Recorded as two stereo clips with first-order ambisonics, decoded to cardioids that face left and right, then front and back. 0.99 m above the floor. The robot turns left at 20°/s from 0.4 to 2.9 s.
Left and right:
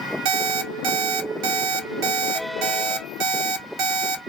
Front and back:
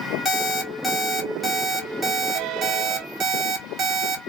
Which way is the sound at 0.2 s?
80° right.